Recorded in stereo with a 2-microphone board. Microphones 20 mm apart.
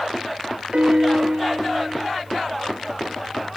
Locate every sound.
0.7 s a piano: 80° right, 0.8 m